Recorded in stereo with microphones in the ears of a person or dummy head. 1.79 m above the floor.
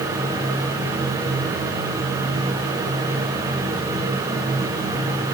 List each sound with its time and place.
Only background noise.